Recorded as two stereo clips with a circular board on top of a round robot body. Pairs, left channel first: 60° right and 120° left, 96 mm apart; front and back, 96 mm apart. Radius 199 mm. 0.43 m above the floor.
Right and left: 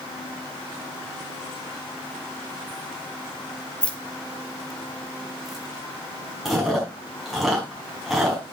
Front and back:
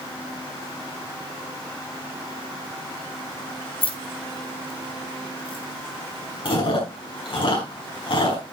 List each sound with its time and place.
3.8 s keys jangling: 20° left, 1.4 m; by 5.7 s 35° left, 3 m
6.5 s chewing: 35° left, 5 m